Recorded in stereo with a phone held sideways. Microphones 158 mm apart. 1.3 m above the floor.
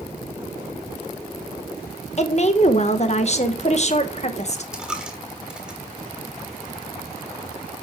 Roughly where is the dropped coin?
Centre.